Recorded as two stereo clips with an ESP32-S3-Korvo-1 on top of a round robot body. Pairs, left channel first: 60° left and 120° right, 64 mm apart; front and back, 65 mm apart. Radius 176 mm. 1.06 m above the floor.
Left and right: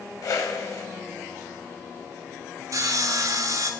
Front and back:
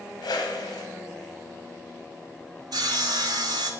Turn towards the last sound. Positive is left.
turn(degrees=-155)